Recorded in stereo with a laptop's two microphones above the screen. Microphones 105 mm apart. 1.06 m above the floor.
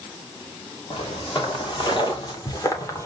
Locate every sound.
0.9 s footsteps: 55° left (ahead or behind), 3 m; by 3.0 s 30° left (ahead or behind), 1.7 m